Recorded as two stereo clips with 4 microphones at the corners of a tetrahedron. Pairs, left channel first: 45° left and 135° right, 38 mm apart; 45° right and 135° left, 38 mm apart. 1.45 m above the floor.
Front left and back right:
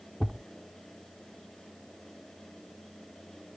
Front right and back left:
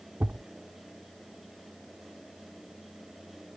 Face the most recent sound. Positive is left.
turn(degrees=120)